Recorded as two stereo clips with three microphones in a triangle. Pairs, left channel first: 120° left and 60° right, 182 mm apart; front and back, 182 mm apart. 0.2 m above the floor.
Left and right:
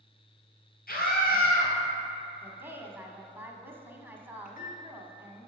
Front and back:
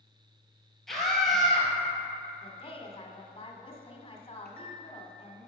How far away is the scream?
About 3.5 m.